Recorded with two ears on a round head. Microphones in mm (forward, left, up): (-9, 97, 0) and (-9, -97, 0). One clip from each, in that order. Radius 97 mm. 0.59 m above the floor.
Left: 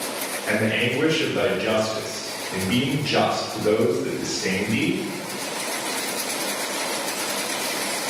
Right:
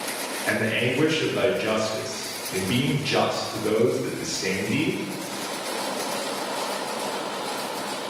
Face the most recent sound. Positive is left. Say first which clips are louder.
# left 2 dB
turn(degrees=-20)  # may be behind; listen again after turning